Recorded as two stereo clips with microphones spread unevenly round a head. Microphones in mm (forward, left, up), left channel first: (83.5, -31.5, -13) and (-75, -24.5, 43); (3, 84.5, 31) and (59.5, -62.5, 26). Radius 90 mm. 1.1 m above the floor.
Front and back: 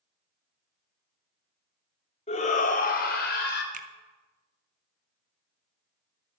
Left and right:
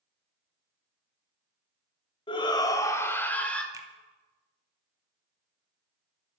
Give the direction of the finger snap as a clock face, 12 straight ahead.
5 o'clock.